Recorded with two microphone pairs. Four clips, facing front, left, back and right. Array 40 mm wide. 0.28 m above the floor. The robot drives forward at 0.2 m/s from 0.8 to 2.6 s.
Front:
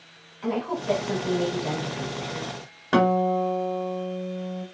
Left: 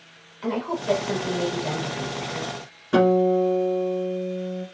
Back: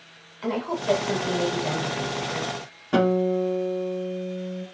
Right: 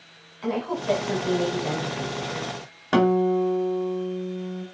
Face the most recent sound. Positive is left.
turn(degrees=-60)